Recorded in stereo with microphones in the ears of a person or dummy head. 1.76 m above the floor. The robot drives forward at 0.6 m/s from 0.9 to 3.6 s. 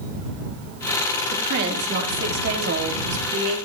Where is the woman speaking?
55° right (ahead or behind), 4 m; by 3.6 s 75° right (ahead or behind), 3.5 m.